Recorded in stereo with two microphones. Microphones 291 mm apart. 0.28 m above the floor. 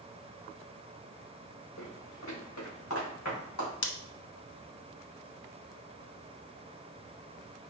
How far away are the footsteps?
About 2.5 m.